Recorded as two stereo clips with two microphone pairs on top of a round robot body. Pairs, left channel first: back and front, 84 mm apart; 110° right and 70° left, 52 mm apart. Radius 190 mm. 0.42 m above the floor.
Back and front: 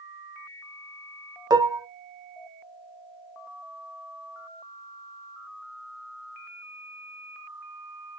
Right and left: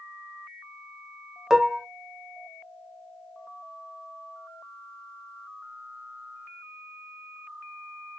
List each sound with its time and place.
1.5 s dishes clattering: straight ahead, 0.5 m